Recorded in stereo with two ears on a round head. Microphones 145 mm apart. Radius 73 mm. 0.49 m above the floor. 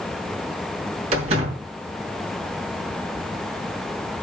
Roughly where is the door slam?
Right.